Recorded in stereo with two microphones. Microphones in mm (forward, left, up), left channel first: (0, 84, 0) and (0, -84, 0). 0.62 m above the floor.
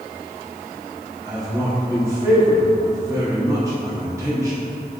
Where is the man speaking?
20° right (ahead or behind), 1.0 m.